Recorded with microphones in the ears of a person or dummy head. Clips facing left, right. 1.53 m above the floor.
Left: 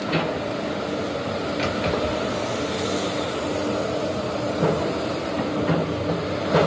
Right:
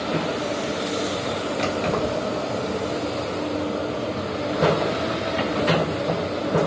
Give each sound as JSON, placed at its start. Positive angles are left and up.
{"t": 1.6, "sound": "keys jangling", "side_deg": 10, "distance_m": 1.8}